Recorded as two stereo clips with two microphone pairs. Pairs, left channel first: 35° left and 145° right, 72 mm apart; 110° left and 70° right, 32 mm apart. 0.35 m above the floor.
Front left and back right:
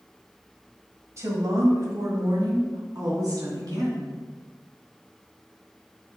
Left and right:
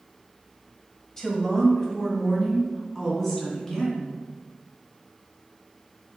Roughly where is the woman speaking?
Behind.